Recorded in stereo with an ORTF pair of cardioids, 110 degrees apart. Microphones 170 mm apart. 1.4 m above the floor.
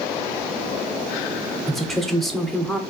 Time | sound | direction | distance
1.7 | a woman speaking | straight ahead | 0.7 m